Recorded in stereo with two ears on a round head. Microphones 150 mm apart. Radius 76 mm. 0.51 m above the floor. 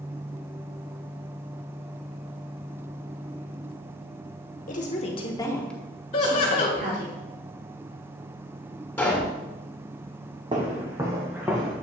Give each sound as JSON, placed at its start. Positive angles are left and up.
{"t": 4.7, "sound": "a woman speaking", "side_deg": 50, "distance_m": 1.3}
{"t": 6.1, "sound": "laughter", "side_deg": 40, "distance_m": 2.0}
{"t": 9.0, "sound": "a pop", "side_deg": 10, "distance_m": 2.5}
{"t": 10.5, "sound": "footsteps", "side_deg": -25, "distance_m": 1.7}